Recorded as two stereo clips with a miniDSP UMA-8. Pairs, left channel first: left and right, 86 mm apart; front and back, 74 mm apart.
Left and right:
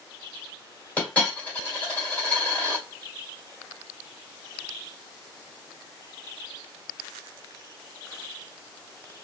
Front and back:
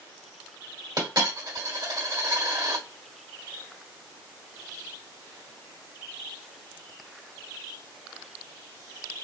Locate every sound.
1.0 s a dropped coin: 160° left, 1.9 m